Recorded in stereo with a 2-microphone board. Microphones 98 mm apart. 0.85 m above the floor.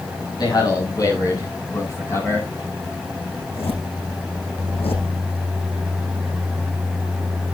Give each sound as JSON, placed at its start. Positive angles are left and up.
{"t": 0.4, "sound": "a man speaking", "side_deg": 40, "distance_m": 7.0}
{"t": 3.4, "sound": "a zipper", "side_deg": 80, "distance_m": 6.0}